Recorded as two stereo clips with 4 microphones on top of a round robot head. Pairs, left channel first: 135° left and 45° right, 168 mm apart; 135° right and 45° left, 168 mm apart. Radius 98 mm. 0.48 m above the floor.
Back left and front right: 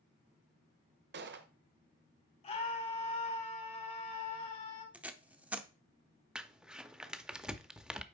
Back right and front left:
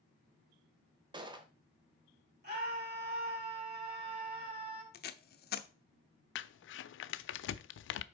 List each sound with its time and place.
1.1 s a gunshot: 20° right, 1.0 m
2.4 s a scream: 80° left, 4.5 m
4.9 s tape being pulled: 125° right, 0.7 m
6.3 s crumpling: 130° right, 0.5 m